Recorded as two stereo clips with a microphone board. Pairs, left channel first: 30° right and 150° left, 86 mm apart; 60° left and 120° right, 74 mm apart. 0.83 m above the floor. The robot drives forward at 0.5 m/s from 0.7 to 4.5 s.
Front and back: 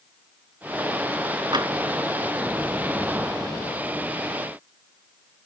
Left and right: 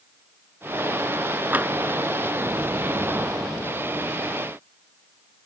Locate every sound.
1.5 s tapping: 175° left